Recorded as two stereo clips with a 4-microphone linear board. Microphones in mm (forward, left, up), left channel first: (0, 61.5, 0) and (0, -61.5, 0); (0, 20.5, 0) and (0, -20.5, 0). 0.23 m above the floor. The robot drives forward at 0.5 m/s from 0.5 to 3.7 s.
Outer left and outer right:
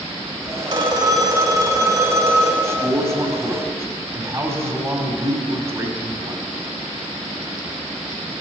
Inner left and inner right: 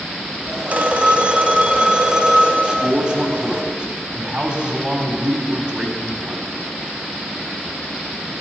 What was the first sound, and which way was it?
A phone ringing, 35° right (ahead or behind).